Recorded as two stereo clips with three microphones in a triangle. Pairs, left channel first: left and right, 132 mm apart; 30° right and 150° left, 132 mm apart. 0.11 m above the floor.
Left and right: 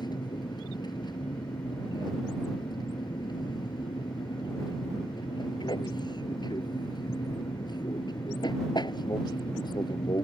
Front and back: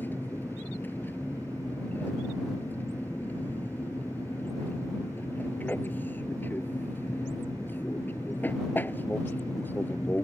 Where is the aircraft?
45° left.